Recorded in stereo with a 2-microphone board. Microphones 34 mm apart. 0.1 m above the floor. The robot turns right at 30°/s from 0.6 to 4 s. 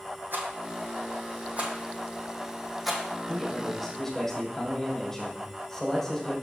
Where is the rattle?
65° right (ahead or behind), 1.8 m; by 3.0 s 5° left (ahead or behind), 1.8 m.